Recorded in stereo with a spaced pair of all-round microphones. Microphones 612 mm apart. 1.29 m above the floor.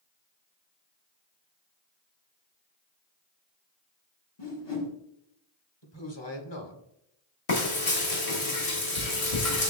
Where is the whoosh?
45° left (ahead or behind), 1.4 m.